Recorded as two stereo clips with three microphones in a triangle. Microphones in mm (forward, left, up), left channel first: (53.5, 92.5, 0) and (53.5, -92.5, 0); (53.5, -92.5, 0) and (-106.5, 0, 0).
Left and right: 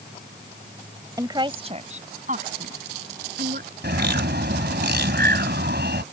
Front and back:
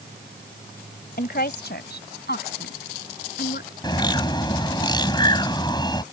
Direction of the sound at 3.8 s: 95° right.